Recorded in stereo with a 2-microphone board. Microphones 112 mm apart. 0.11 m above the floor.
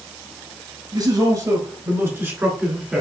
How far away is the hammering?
I don't hear hammering.